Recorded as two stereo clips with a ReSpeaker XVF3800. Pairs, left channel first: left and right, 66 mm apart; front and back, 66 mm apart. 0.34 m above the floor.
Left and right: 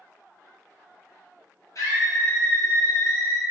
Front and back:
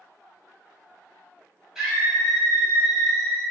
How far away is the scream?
About 2.0 m.